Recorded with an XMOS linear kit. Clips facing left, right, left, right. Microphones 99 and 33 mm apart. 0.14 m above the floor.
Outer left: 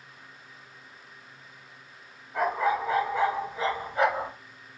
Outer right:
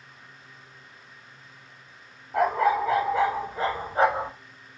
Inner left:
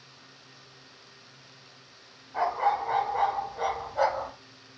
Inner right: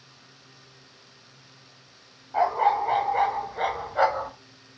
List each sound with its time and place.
2.3 s a dog barking: 75° right (ahead or behind), 1.5 m; by 4.3 s 15° right (ahead or behind), 0.6 m